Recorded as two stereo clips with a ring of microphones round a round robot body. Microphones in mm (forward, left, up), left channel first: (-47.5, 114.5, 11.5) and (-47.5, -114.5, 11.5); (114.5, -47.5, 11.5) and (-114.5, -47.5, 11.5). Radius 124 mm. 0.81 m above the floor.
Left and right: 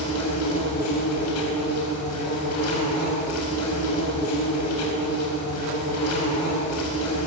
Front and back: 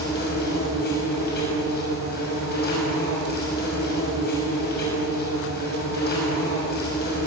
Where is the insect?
55° left, 6 m.